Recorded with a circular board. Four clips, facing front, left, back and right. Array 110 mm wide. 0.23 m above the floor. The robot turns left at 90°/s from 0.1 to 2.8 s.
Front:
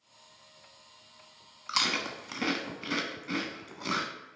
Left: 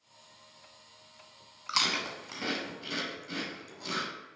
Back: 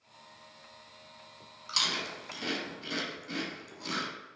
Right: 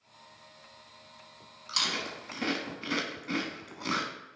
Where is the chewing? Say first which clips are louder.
Left 3 dB, front 4 dB; 55° left, 0.9 m; by 4.1 s 45° right, 0.9 m.